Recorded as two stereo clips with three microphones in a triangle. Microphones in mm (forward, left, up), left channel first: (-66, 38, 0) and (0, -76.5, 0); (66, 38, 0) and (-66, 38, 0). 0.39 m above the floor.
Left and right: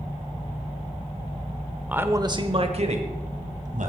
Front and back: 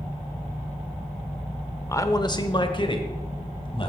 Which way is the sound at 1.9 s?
Straight ahead.